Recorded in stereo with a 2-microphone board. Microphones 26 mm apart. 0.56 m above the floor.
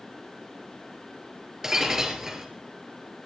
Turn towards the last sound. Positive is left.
turn(degrees=-20)  # may be behind; listen again after turning